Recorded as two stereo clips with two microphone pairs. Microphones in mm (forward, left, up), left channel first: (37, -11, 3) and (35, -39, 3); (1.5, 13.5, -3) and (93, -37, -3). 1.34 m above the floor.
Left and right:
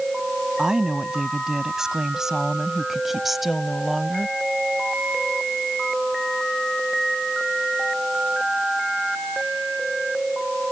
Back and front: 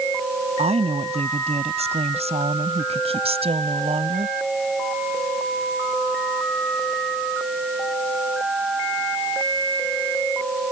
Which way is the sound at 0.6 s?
30° right.